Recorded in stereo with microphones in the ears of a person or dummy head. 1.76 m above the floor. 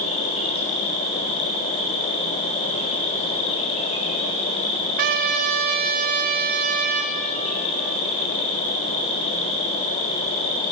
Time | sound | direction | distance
0.0 | an insect | 40° left (ahead or behind) | 4.5 m
5.0 | a trumpet | 45° right (ahead or behind) | 0.8 m